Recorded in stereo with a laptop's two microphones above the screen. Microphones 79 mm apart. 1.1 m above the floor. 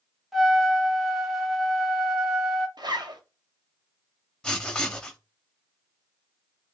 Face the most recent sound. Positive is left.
turn(degrees=10)  # may be behind; listen again after turning